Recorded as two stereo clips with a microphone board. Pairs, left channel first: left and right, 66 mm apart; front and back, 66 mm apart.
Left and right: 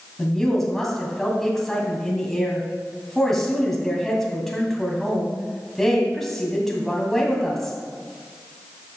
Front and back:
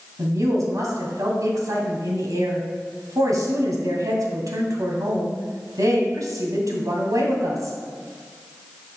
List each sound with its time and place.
0.2 s a woman speaking: 175° left, 2.5 m